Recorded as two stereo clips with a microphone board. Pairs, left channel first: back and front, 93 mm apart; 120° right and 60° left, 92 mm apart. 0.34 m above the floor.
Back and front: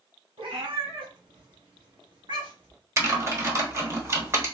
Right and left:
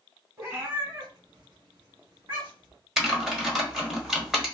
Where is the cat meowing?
5° left, 1.6 m; by 2.8 s 30° left, 2.5 m.